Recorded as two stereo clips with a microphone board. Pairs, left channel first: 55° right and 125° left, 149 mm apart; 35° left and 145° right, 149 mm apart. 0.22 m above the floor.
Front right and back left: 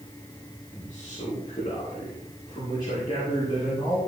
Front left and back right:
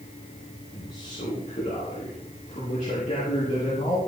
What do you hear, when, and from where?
0.7 s a man speaking: 5° left, 7.5 m